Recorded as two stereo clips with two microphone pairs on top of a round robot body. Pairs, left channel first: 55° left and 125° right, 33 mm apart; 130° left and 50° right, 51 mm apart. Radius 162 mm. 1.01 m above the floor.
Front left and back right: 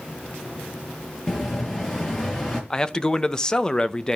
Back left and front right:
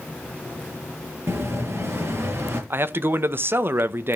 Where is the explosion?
15° right, 6.5 m.